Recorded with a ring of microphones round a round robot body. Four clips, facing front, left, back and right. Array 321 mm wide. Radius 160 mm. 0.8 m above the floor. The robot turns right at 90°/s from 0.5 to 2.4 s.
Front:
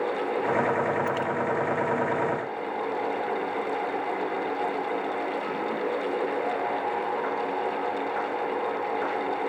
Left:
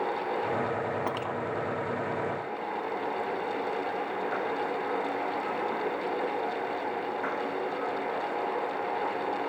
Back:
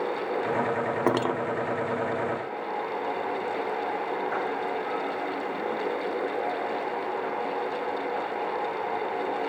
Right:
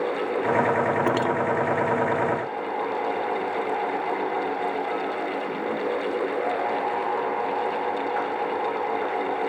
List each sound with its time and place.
1.1 s cutlery clinking: 150° right; by 1.4 s 120° right